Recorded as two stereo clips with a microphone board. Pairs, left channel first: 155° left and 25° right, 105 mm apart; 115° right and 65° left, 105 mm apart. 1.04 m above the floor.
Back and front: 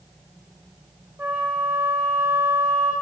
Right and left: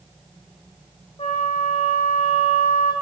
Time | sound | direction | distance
1.2 | a flute | 95° right | 2.5 m